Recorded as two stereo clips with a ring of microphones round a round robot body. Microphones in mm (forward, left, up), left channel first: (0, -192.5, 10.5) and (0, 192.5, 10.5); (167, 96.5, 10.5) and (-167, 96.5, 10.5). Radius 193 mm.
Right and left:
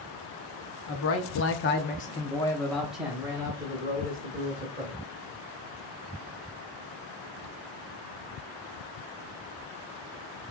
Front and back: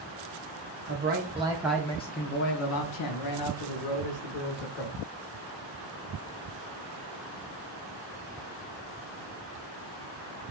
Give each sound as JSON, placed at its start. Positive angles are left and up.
{"t": 0.9, "sound": "a man speaking", "azimuth_deg": -135, "distance_m": 0.9}